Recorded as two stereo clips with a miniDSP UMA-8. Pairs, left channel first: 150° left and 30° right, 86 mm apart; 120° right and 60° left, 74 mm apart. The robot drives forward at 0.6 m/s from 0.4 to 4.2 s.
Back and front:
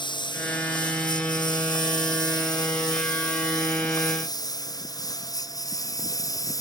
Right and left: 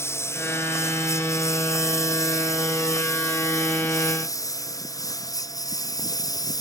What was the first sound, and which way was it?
A lawn mower, straight behind.